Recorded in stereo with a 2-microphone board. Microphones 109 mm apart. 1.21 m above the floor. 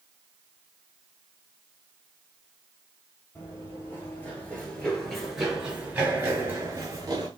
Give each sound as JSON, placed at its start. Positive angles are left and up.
{"t": 3.4, "sound": "running footsteps", "side_deg": 25, "distance_m": 1.9}